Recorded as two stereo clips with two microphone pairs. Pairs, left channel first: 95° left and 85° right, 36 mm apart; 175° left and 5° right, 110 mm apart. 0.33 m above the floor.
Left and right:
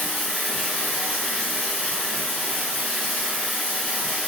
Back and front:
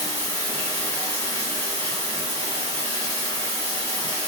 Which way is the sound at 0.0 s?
10° left.